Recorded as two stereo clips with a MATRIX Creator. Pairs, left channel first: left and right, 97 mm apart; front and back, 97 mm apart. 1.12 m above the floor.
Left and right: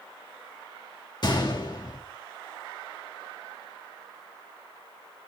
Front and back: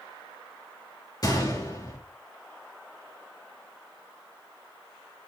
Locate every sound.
1.2 s a gunshot: 50° left, 1.5 m